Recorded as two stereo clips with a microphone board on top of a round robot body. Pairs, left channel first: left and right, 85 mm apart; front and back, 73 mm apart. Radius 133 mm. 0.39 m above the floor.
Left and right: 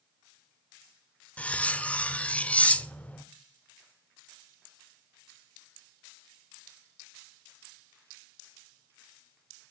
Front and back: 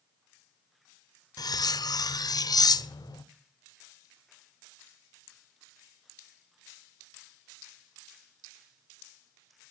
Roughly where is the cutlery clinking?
Ahead.